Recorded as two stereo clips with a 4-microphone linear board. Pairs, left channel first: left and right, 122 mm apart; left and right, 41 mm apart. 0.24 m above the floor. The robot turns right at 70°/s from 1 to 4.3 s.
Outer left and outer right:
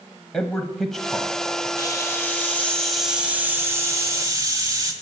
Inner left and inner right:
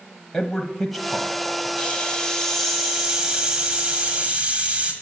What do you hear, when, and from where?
0.3 s a man speaking: centre (ahead or behind), 1.0 m; by 1.7 s 15° left (ahead or behind), 1.0 m
1.8 s a hiss: 25° left (ahead or behind), 1.6 m; by 4.9 s 25° right (ahead or behind), 1.6 m